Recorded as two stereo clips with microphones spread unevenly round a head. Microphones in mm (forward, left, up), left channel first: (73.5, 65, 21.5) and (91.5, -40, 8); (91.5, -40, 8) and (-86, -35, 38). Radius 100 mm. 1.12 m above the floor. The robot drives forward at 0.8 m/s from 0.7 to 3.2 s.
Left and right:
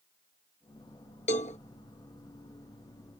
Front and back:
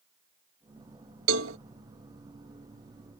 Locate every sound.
1.3 s a cowbell: 150° left; by 1.6 s 155° left